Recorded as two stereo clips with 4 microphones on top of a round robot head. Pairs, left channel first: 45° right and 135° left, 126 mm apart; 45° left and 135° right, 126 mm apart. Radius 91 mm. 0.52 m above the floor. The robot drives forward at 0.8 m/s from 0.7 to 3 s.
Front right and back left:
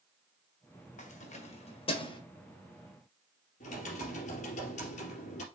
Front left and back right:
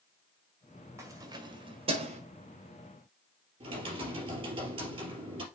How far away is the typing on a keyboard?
About 3 m.